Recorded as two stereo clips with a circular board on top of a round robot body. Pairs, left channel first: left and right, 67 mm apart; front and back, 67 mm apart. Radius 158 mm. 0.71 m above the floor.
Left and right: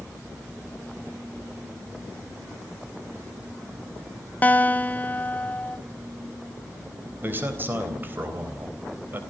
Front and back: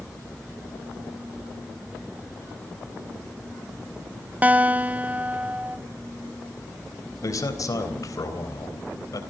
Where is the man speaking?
30° right, 3.5 m.